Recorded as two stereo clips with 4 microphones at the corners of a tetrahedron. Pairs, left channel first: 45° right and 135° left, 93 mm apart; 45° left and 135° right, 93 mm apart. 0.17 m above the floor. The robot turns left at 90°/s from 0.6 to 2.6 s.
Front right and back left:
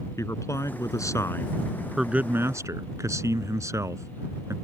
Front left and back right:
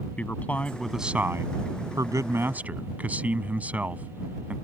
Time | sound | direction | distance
0.2 | a man speaking | 20° right | ?